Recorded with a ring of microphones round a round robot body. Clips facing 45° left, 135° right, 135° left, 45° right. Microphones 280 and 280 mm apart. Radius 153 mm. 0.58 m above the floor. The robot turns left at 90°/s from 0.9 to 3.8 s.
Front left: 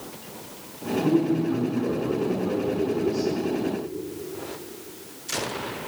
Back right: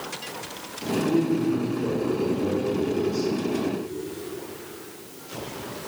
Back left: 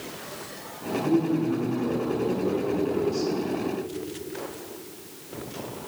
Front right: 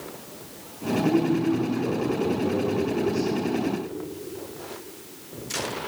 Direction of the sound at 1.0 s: Straight ahead.